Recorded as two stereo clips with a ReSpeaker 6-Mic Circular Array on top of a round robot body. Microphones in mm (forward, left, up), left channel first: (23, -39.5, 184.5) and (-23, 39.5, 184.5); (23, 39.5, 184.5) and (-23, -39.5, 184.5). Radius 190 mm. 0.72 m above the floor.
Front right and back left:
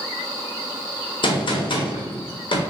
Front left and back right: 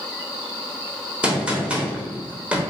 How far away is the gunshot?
About 0.9 m.